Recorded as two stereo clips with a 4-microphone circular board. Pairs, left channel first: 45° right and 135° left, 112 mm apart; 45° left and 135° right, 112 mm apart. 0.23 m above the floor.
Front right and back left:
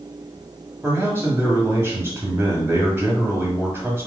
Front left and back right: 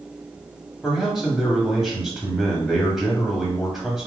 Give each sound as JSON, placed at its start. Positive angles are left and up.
{"t": 0.8, "sound": "a man speaking", "azimuth_deg": 145, "distance_m": 1.2}